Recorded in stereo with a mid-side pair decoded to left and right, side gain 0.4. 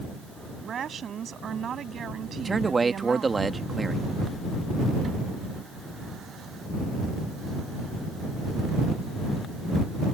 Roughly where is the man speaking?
Ahead right.